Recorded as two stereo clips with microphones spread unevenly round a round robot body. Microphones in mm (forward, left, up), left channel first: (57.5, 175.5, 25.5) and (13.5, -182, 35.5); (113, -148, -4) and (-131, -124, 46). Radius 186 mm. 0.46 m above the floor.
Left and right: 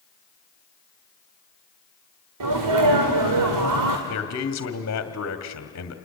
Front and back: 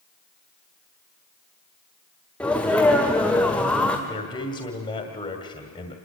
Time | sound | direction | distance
2.4 | a sneeze | 80° right | 1.9 m
4.1 | a man speaking | 50° left | 1.8 m